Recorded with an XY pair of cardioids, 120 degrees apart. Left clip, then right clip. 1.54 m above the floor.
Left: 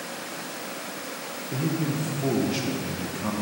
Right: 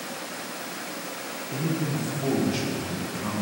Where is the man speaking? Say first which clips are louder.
Left 1 dB; 15° left, 1.0 m.